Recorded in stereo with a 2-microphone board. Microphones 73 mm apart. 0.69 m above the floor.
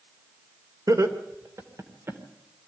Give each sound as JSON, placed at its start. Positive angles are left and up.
{"t": 0.9, "sound": "laughter", "side_deg": -55, "distance_m": 2.5}